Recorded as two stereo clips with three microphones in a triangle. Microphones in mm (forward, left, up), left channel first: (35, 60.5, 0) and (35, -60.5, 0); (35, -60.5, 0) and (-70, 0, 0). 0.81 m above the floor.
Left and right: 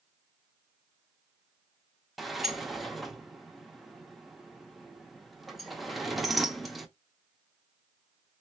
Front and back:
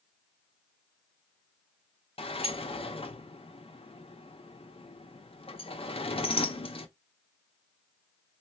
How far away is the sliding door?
About 0.8 m.